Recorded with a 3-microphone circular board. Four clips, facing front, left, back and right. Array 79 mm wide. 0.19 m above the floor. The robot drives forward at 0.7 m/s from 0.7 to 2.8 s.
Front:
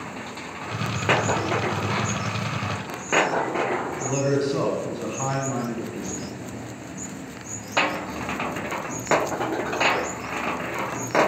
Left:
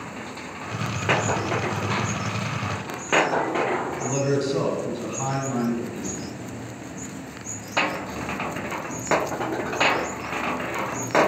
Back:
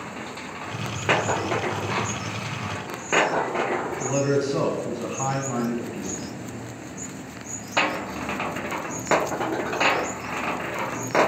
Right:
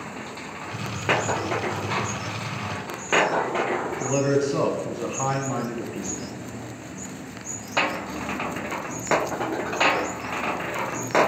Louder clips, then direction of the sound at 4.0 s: Right 4 dB, back 1 dB; 105° right.